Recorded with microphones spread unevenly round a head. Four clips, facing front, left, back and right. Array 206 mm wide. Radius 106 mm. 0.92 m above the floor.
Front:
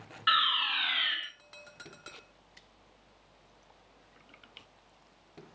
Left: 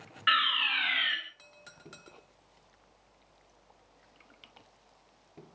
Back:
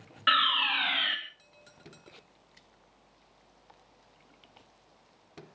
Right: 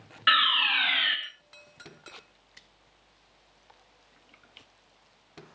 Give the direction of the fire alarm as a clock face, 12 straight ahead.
5 o'clock.